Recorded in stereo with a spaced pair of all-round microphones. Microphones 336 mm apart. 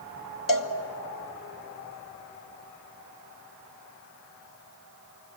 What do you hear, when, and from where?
0.5 s a cowbell: 60° left (ahead or behind), 1.2 m